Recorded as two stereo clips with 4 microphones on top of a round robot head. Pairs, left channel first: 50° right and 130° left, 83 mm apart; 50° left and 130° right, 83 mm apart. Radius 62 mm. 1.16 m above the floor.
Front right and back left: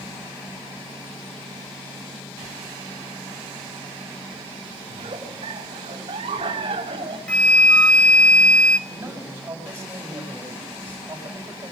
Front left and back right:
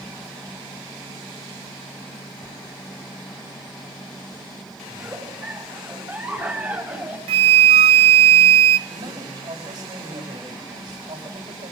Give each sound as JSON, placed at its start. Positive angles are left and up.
{"t": 4.9, "sound": "a giggle", "azimuth_deg": 160, "distance_m": 4.0}
{"t": 7.3, "sound": "a flute", "azimuth_deg": -130, "distance_m": 0.7}
{"t": 8.9, "sound": "a man speaking", "azimuth_deg": -165, "distance_m": 7.5}